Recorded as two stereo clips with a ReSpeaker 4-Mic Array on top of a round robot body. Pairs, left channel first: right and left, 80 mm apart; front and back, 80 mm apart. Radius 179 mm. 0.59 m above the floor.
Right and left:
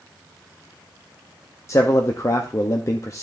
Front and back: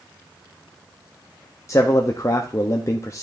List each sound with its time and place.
1.7 s a man speaking: 45° right, 0.9 m